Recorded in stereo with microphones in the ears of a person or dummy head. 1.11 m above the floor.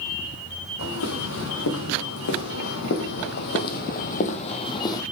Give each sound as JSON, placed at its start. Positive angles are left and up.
{"t": 0.8, "sound": "footsteps", "side_deg": 70, "distance_m": 4.5}